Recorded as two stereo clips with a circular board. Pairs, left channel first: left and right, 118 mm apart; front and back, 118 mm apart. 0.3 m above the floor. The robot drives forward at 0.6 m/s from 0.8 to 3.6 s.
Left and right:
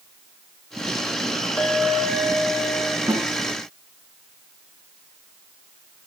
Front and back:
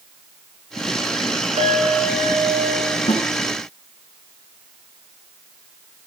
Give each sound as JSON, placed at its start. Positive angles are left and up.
{"t": 1.6, "sound": "a clink", "azimuth_deg": 170, "distance_m": 7.5}
{"t": 3.1, "sound": "a snare drum", "azimuth_deg": -30, "distance_m": 3.5}